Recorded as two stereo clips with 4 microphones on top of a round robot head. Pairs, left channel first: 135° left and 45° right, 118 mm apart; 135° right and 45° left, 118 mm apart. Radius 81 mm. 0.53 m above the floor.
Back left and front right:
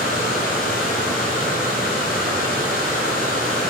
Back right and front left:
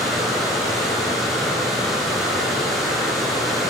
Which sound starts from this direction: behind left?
Running water, at 0.0 s.